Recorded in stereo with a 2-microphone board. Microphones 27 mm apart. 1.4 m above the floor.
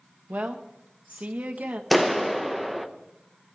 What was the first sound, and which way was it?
A woman speaking, 65° right (ahead or behind).